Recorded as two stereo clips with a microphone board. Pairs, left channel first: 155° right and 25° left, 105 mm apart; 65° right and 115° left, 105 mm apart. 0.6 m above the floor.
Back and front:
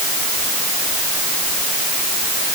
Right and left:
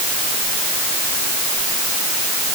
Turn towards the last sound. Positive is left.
No sound to turn to.